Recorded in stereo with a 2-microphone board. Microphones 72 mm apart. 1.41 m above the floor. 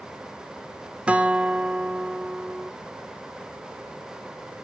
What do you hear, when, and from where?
1.1 s a guitar: 15° right (ahead or behind), 1.0 m